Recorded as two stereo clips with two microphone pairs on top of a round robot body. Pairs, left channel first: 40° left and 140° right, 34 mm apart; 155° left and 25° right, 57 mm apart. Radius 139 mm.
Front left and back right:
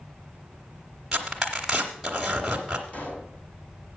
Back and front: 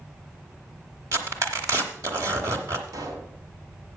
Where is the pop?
5° right, 2.5 m.